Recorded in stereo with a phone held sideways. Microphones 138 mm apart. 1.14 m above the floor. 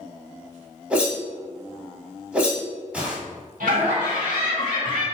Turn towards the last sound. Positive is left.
turn(degrees=-90)